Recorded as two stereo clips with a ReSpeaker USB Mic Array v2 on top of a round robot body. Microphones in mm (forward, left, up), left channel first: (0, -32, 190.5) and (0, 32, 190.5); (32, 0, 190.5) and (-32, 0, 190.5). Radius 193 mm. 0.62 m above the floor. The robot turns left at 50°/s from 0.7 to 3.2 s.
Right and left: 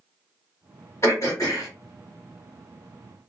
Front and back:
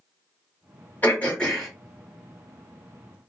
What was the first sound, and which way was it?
Throat clearing, 55° right.